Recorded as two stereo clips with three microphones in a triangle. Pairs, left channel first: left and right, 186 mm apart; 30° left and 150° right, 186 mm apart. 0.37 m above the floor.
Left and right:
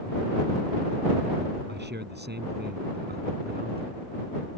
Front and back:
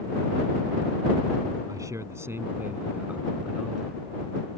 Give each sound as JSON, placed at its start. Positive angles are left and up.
{"t": 1.7, "sound": "a man speaking", "azimuth_deg": -80}